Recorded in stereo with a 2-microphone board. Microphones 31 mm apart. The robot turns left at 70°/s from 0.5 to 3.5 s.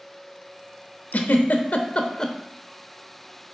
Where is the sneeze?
I don't hear a sneeze.